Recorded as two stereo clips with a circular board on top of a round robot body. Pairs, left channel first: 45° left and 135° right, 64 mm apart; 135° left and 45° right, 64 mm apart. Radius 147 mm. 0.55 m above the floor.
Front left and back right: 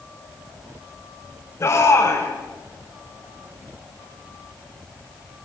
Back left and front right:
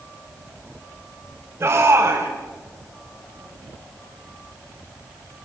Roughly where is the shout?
Ahead.